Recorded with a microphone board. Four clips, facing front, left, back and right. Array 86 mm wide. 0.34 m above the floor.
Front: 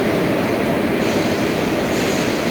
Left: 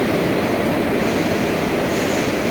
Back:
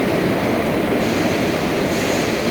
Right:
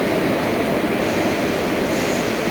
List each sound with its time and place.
Only background noise.